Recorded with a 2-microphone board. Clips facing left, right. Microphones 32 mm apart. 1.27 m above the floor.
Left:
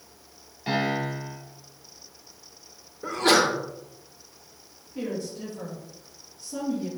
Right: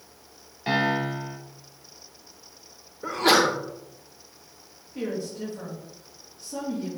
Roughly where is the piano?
Right.